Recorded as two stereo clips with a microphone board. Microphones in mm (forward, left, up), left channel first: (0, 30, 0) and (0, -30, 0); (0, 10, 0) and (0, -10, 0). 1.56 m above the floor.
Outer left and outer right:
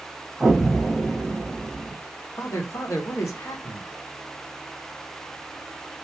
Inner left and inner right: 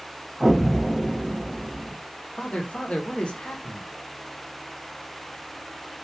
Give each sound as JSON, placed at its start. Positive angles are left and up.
{"t": 0.4, "sound": "an explosion", "side_deg": -10, "distance_m": 1.0}
{"t": 2.4, "sound": "a man speaking", "side_deg": 55, "distance_m": 0.6}